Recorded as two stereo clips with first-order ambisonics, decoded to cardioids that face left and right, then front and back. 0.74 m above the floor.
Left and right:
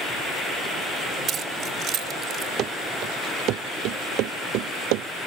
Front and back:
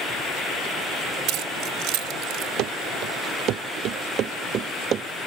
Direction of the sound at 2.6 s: 140° right.